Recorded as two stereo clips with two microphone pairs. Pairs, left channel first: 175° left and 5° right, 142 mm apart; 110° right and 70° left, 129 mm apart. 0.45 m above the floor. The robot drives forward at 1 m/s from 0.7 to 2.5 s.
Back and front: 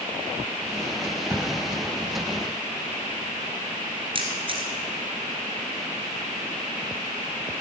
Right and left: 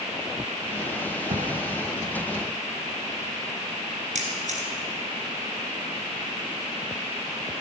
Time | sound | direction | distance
1.3 | a thud | 70° left | 1.3 m
4.2 | a camera shutter | 45° left | 2 m